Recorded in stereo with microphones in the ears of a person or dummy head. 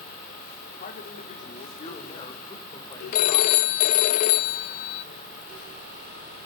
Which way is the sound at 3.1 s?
45° left (ahead or behind).